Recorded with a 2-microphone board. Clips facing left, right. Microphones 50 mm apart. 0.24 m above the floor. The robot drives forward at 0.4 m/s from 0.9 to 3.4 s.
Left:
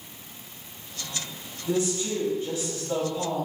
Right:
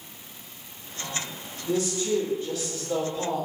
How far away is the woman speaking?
About 1.5 m.